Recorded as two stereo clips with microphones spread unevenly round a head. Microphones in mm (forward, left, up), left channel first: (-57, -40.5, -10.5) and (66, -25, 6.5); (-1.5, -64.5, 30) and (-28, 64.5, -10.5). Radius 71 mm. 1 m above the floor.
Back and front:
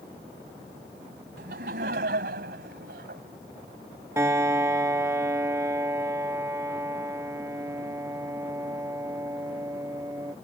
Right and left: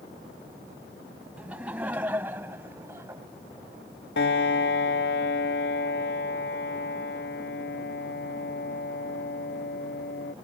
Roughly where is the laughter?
Ahead.